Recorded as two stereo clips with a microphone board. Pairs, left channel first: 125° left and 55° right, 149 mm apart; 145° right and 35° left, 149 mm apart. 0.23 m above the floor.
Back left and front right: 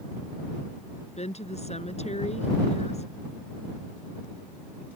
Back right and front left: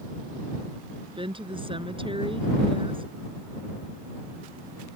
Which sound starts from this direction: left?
A woman speaking, at 1.2 s.